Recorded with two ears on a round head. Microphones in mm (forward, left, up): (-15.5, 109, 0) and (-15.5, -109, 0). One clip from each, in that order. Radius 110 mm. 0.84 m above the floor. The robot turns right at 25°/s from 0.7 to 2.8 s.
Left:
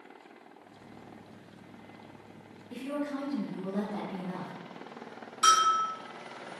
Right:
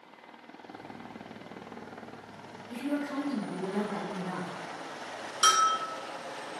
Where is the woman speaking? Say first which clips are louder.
Right 2 dB; 60° right (ahead or behind), 1.6 m.